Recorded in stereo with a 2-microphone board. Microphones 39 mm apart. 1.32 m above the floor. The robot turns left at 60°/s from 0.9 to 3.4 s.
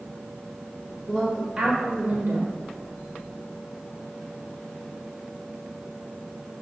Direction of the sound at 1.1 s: 15° left.